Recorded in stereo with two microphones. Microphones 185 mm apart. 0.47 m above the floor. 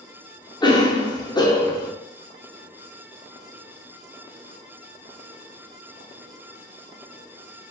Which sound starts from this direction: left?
A cough, at 0.6 s.